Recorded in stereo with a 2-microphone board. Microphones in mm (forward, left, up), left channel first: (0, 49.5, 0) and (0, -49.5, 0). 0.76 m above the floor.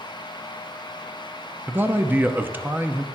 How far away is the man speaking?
About 0.7 m.